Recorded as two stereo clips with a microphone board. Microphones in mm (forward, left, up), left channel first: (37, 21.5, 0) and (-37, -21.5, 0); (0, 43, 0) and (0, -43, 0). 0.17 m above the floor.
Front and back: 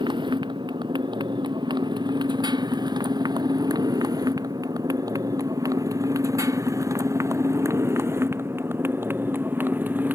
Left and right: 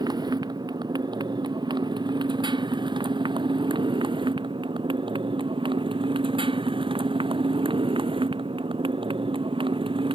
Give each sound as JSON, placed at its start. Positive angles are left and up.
{"t": 0.0, "sound": "a motorcycle", "azimuth_deg": -125}